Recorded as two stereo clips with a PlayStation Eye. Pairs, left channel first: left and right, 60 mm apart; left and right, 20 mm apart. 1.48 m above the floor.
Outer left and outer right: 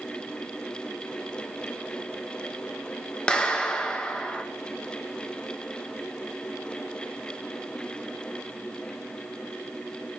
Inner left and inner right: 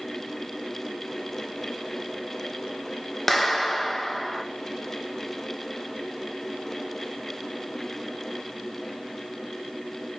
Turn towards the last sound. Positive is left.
turn(degrees=15)  # may be behind; listen again after turning